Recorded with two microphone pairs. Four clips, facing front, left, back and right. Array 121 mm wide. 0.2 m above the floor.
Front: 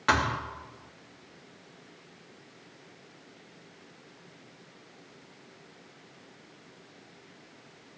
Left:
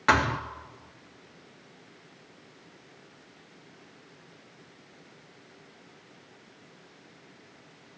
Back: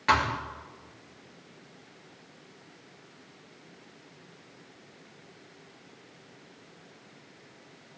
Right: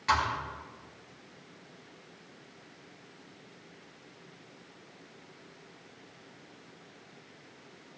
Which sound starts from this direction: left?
A thud, at 0.1 s.